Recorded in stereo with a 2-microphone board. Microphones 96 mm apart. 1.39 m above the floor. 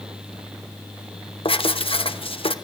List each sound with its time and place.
1.4 s writing: 70° left (ahead or behind), 1.0 m